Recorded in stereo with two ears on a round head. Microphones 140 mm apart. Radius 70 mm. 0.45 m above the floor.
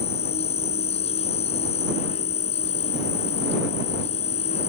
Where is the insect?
40° left (ahead or behind).